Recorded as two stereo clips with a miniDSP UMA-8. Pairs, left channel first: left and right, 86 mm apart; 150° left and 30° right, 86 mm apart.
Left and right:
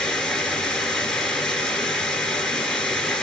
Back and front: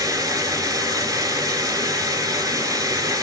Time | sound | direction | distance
0.0 | running water | 5° left | 0.9 m